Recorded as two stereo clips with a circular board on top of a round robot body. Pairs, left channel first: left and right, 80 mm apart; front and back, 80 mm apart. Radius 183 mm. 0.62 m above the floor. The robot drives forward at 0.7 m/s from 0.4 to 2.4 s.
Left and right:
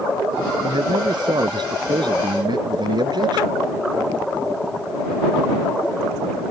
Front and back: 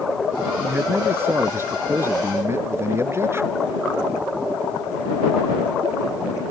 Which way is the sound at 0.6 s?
115° right.